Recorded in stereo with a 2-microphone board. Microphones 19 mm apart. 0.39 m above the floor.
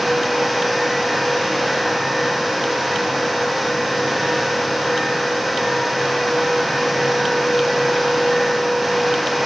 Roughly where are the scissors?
No scissors in this recording.